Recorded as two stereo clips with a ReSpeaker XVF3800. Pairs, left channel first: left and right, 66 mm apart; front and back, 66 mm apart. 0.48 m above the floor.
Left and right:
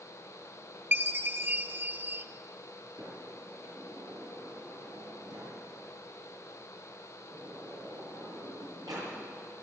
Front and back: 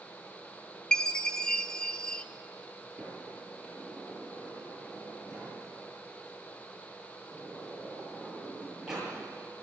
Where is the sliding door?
100° right, 8.5 m.